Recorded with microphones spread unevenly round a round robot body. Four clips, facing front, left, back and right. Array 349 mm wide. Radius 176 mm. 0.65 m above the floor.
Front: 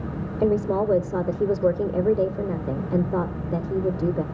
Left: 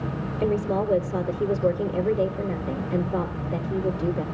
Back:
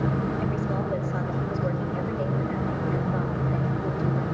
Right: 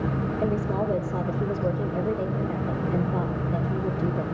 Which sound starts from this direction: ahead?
A woman speaking, at 0.4 s.